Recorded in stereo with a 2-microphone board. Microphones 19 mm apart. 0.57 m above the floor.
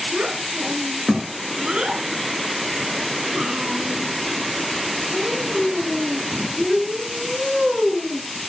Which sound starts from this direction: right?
A child speaking, at 0.1 s.